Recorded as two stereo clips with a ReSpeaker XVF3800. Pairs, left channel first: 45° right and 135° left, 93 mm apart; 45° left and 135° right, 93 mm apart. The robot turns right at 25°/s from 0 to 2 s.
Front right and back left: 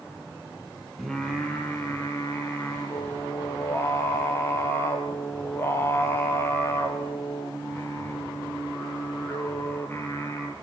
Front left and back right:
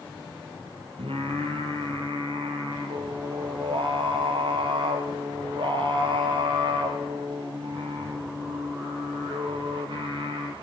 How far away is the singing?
About 3 m.